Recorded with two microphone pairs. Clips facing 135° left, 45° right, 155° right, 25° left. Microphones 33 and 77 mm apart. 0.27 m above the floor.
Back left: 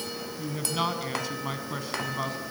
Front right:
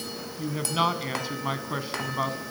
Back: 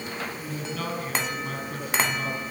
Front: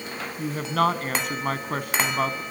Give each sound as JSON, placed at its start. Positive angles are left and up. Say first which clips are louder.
{"t": 0.4, "sound": "a woman speaking", "louder": "front right 4 dB, front 9 dB", "azimuth_deg": 25, "distance_m": 2.5}